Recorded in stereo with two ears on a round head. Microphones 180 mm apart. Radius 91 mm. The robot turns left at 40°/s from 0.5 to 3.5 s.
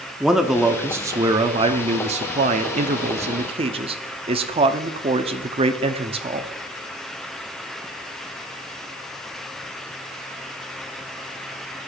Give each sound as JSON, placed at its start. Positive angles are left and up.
{"t": 0.2, "sound": "a man speaking", "azimuth_deg": -5, "distance_m": 0.8}